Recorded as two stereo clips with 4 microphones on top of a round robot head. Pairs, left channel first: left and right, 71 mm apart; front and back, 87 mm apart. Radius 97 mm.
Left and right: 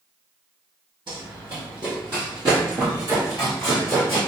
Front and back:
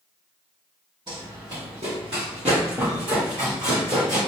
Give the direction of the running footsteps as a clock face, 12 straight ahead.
4 o'clock.